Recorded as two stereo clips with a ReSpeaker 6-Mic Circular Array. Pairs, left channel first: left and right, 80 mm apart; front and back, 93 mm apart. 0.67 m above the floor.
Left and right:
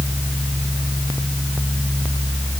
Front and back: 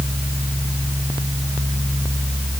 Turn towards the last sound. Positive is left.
No sound to turn to.